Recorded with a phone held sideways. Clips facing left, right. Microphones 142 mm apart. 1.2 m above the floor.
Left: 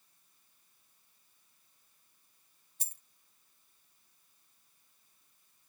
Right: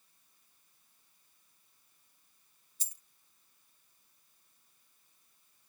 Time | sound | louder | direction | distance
2.8 | a dropped coin | left 6 dB | 60° left (ahead or behind) | ?